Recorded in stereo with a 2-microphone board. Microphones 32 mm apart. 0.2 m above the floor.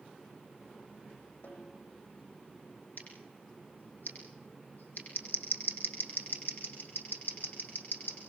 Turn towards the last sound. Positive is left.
turn(degrees=60)  # may be behind; listen again after turning